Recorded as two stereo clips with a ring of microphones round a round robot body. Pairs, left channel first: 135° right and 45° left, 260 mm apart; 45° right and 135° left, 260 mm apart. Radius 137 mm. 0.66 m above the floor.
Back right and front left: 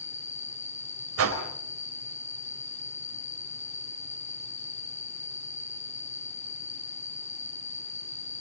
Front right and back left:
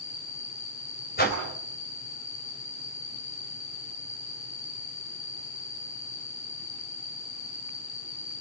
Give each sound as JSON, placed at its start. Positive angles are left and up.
{"t": 0.0, "sound": "an insect", "azimuth_deg": -70, "distance_m": 3.0}
{"t": 1.2, "sound": "a whoosh", "azimuth_deg": 10, "distance_m": 4.0}